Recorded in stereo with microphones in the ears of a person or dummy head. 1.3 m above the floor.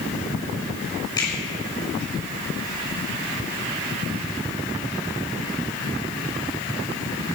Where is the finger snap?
25° left (ahead or behind), 6 m.